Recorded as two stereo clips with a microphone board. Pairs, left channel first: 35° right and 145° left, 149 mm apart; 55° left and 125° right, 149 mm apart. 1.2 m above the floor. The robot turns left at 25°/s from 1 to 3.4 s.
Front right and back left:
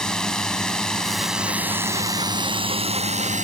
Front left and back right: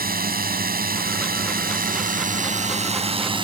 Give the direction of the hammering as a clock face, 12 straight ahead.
No hammering in this recording.